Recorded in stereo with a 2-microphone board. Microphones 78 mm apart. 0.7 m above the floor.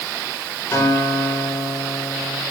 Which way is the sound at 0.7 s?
40° left (ahead or behind).